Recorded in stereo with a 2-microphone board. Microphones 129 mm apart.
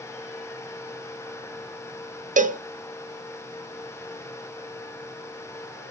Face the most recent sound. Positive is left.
turn(degrees=-85)